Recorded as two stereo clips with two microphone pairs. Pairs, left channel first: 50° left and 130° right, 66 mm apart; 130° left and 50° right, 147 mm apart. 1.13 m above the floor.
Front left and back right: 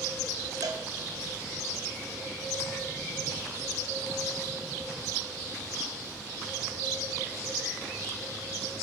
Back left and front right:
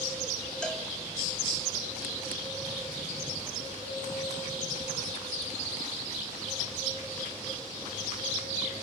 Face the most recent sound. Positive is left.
turn(degrees=-145)